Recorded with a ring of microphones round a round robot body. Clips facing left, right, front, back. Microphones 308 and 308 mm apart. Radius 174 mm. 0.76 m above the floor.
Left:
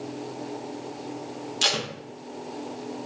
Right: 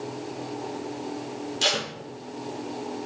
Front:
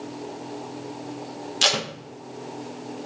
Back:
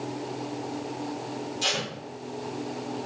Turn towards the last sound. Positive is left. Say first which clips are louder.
# even, front 3 dB
turn(degrees=15)